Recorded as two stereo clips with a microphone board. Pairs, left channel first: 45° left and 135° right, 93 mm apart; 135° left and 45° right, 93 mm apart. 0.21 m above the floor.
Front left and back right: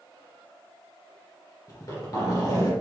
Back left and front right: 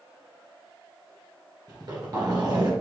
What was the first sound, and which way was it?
A zipper, 5° right.